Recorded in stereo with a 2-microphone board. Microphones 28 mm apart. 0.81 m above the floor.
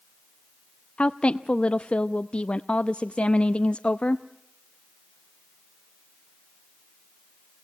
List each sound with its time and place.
1.0 s a woman speaking: 45° left (ahead or behind), 0.5 m